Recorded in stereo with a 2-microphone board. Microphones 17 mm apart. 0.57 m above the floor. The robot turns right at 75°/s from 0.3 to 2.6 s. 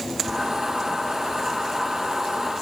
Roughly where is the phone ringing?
No phone ringing in this recording.